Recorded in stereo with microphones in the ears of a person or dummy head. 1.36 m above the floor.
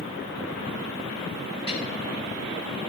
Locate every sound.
1.7 s a snare drum: 25° left (ahead or behind), 7.5 m